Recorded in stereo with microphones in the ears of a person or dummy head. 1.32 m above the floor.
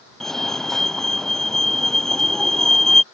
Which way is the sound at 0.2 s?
Centre (ahead or behind).